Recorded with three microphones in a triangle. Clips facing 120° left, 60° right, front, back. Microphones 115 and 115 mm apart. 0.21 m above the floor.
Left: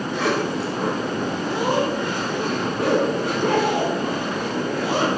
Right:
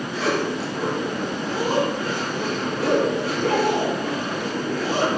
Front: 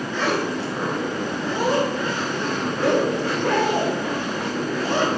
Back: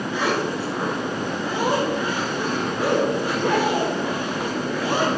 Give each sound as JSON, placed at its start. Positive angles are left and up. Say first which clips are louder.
{"t": 0.1, "sound": "a zipper", "louder": "left 1 dB, even", "azimuth_deg": 105, "distance_m": 2.0}